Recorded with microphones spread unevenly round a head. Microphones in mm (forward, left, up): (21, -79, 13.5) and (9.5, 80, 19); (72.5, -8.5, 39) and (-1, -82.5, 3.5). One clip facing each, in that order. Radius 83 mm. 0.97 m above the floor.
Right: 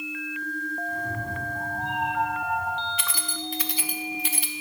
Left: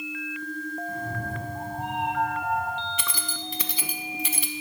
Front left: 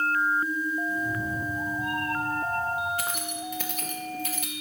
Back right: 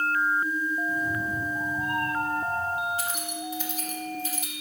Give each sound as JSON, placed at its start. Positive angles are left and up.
{"t": 0.9, "sound": "a cat meowing", "azimuth_deg": 160, "distance_m": 4.0}
{"t": 3.0, "sound": "keys jangling", "azimuth_deg": 100, "distance_m": 0.9}